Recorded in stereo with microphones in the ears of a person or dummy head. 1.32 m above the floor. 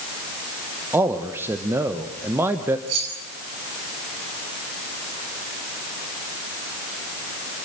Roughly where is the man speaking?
Centre.